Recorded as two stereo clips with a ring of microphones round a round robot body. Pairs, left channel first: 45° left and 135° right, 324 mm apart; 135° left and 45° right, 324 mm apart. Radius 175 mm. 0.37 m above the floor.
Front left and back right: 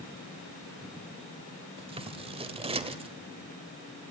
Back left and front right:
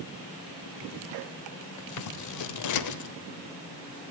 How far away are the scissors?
About 1.0 m.